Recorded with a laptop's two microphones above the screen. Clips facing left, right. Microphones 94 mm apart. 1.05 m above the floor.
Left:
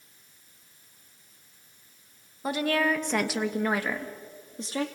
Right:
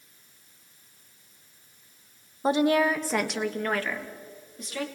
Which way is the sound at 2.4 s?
30° right (ahead or behind).